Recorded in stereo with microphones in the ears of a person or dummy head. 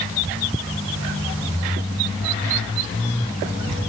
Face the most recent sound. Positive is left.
No sound to turn to.